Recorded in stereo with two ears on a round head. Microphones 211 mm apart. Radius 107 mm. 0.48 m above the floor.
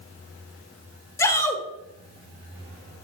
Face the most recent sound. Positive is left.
turn(degrees=15)  # may be behind; listen again after turning